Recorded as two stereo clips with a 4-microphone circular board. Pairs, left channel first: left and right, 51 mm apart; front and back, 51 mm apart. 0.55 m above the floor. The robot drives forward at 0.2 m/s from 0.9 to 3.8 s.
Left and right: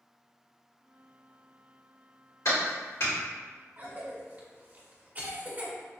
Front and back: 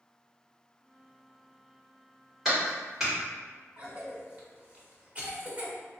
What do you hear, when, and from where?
2.5 s a clap: 95° left, 1.8 m; by 3.1 s 100° left, 1.8 m
3.8 s a cough: 130° right, 0.9 m